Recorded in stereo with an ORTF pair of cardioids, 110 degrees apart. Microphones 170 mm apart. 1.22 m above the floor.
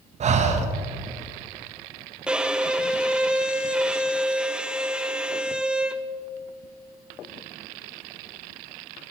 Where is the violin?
5° right, 0.6 m.